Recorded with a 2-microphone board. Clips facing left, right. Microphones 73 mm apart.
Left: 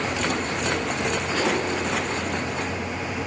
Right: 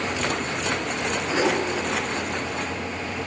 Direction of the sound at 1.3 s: 15° right (ahead or behind).